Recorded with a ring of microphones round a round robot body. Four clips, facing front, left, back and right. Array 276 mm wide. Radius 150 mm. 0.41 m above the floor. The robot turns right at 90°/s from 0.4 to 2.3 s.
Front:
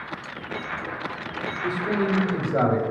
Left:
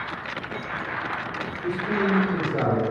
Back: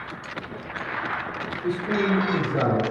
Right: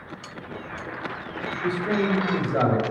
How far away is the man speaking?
About 2 m.